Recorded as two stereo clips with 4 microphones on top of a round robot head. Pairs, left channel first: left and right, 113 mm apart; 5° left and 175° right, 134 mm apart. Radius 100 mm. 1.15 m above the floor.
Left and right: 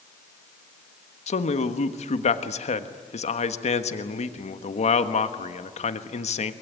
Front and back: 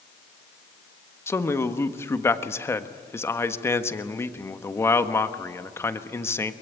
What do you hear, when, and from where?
1.3 s a man speaking: 75° left, 1.4 m